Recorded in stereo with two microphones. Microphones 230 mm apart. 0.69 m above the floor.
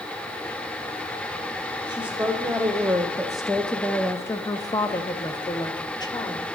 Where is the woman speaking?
10° right (ahead or behind), 1.5 m; by 6.4 s 15° left (ahead or behind), 1.4 m.